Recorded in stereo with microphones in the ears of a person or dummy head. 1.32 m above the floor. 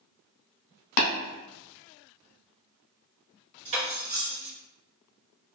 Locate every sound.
1.0 s tapping: 50° left (ahead or behind), 0.9 m
3.6 s cutlery clinking: 40° right (ahead or behind), 0.8 m